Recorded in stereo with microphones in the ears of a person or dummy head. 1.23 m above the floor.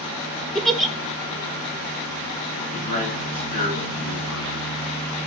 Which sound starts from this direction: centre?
A giggle, at 0.6 s.